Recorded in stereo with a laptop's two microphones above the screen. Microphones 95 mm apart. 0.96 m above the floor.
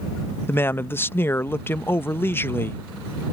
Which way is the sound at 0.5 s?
25° left (ahead or behind).